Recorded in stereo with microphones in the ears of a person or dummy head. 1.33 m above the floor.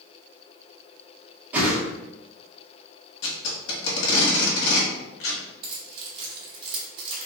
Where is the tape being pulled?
75° left (ahead or behind), 1.6 m.